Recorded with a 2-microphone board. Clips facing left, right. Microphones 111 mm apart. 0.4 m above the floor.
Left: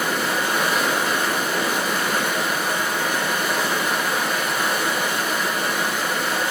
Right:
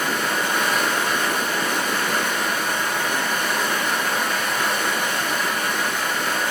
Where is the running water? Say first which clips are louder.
Left 1 dB; 10° left (ahead or behind), 2.5 m.